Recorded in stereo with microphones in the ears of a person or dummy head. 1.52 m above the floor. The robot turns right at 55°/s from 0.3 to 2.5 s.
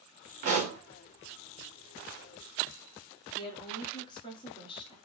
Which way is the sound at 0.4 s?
45° right (ahead or behind).